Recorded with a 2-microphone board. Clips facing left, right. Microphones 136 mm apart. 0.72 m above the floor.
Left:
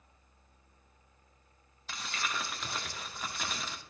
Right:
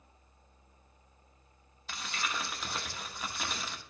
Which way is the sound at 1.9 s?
Centre (ahead or behind).